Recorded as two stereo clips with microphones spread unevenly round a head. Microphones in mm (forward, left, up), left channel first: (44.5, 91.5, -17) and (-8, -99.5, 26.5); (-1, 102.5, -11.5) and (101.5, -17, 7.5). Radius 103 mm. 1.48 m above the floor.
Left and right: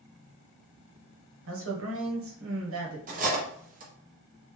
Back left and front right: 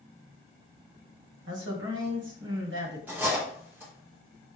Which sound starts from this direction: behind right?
Cutlery clinking, at 3.1 s.